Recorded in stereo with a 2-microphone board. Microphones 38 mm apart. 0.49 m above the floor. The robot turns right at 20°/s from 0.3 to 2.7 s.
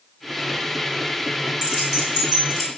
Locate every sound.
1.6 s keys jangling: 20° right (ahead or behind), 1.2 m; by 2.7 s 5° right (ahead or behind), 1.2 m